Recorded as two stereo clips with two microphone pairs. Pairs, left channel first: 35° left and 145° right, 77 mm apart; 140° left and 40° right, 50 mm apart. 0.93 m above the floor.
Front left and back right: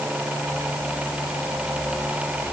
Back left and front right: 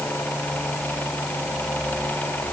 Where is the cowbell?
No cowbell in this recording.